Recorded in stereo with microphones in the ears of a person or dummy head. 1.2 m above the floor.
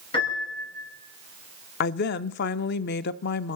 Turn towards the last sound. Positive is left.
turn(degrees=65)  # may be behind; listen again after turning